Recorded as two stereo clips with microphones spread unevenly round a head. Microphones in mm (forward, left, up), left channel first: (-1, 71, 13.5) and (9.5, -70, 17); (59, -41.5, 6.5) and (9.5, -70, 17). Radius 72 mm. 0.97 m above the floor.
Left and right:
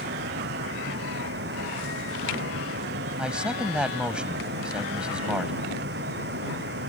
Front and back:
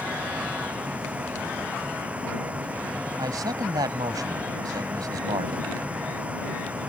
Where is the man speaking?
170° right.